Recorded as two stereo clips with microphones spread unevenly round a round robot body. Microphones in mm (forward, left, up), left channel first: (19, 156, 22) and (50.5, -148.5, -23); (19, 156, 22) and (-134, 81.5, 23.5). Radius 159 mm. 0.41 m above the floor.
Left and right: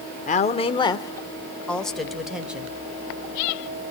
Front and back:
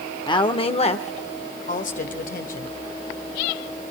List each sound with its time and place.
0.3 s a woman speaking: 40° left, 0.9 m; by 2.7 s 5° right, 1.7 m